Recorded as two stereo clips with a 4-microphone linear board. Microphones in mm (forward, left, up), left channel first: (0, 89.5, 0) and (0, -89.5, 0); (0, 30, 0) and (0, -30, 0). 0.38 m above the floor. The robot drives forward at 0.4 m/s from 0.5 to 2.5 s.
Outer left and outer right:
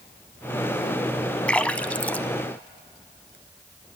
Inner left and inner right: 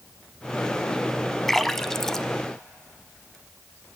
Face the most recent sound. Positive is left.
turn(degrees=10)  # may be behind; listen again after turning